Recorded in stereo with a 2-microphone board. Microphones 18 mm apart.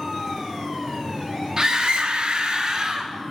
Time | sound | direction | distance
1.6 | a scream | 40° right (ahead or behind) | 0.6 m